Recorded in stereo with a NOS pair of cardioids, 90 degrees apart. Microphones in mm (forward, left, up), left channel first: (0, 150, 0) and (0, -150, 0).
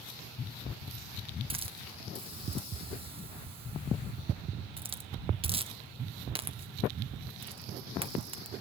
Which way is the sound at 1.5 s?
20° right.